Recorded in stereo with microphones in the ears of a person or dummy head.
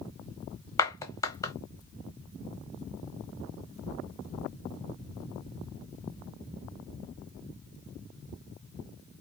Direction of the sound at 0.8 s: 10° left (ahead or behind).